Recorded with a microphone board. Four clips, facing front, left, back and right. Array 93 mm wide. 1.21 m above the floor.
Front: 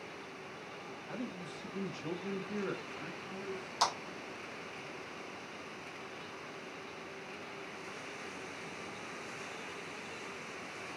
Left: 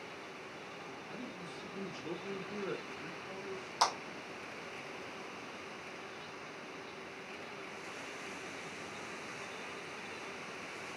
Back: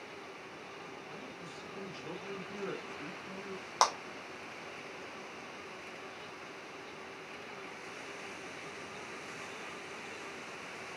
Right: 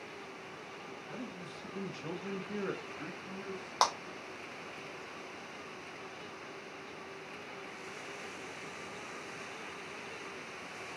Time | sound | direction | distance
1.1 | a man speaking | 20° right | 1.0 m
3.8 | a clap | 140° right | 1.0 m